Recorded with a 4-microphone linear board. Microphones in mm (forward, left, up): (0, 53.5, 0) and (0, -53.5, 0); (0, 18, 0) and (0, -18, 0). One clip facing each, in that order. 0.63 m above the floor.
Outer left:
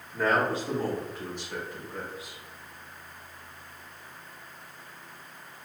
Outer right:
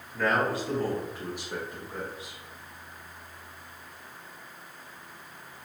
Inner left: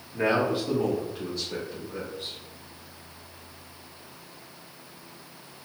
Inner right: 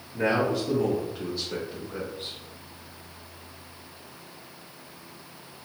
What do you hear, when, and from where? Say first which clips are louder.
0.1 s a man speaking: outer left 1 dB, even; 40° left (ahead or behind), 1.0 m; by 2.4 s 50° right (ahead or behind), 1.0 m